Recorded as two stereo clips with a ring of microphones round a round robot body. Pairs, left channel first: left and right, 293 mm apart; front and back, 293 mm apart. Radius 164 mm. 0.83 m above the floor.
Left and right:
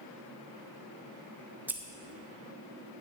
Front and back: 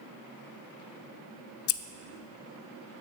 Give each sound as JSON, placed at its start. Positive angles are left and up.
{"t": 1.7, "sound": "scissors", "azimuth_deg": -5, "distance_m": 0.5}